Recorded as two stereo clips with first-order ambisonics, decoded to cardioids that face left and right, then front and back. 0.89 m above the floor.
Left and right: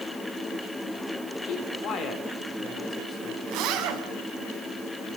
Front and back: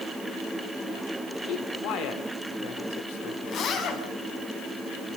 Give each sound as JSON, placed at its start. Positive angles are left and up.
{"t": 1.4, "sound": "a man speaking", "azimuth_deg": 45, "distance_m": 3.5}
{"t": 3.5, "sound": "a zipper", "azimuth_deg": -55, "distance_m": 3.5}